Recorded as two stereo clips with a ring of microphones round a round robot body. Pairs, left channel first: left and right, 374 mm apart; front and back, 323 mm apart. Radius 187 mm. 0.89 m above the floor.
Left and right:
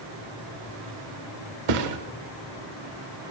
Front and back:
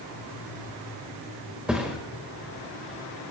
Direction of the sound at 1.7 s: 95° right.